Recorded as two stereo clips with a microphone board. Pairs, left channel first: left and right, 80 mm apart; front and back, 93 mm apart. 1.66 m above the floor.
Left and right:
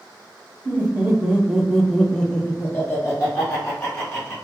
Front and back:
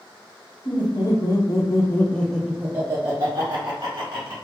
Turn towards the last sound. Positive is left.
turn(degrees=150)